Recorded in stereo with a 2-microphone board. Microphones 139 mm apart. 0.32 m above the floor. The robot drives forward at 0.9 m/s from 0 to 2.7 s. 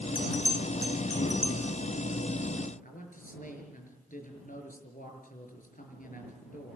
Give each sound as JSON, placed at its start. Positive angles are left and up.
{"t": 0.1, "sound": "a bell", "side_deg": 35, "distance_m": 1.5}
{"t": 2.8, "sound": "a man speaking", "side_deg": 80, "distance_m": 5.5}